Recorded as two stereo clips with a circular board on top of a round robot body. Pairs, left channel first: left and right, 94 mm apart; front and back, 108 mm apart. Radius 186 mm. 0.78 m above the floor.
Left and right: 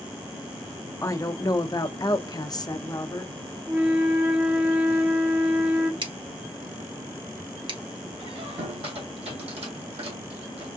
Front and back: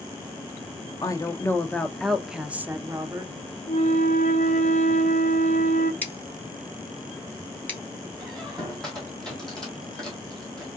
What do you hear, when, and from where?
1.0 s a woman speaking: 45° left, 1.2 m; by 3.3 s 130° left, 1.3 m
3.7 s a flute: 10° right, 0.6 m
6.0 s scissors: 75° right, 2.0 m
8.2 s a squeak: 85° right, 1.7 m